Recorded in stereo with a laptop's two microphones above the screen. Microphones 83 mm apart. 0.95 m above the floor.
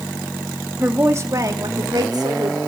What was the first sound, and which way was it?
A woman speaking, 25° right (ahead or behind).